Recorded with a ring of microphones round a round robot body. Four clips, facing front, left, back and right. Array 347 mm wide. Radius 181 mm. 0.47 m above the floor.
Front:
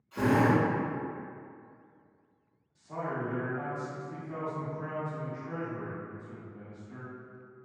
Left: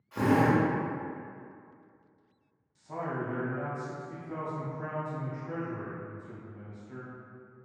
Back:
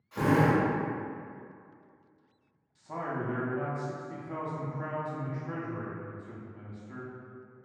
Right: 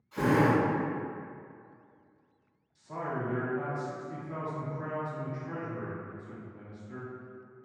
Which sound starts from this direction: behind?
A man speaking, at 2.8 s.